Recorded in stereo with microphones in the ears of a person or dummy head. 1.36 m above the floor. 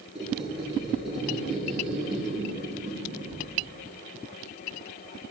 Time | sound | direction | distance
0.1 | a squeak | centre (ahead or behind) | 3 m